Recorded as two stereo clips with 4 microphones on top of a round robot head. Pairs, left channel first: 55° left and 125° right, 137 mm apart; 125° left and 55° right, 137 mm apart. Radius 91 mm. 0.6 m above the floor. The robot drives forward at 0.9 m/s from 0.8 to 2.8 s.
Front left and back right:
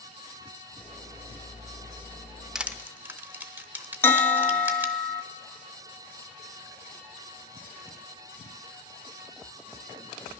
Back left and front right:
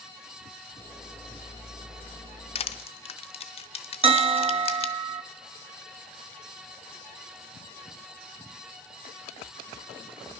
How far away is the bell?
About 0.6 m.